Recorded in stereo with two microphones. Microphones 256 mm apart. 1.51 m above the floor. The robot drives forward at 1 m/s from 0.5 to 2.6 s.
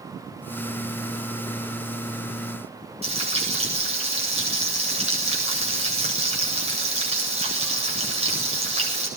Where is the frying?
25° right (ahead or behind), 8 m.